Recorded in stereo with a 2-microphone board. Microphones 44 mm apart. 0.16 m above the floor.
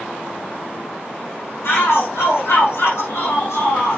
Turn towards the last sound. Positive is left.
turn(degrees=75)  # may be behind; listen again after turning